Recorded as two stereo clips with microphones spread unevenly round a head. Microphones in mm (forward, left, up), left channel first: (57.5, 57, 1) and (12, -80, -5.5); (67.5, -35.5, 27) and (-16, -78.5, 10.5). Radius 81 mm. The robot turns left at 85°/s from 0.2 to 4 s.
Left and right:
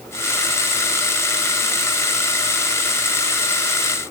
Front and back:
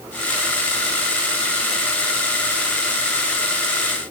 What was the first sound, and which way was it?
Only background noise.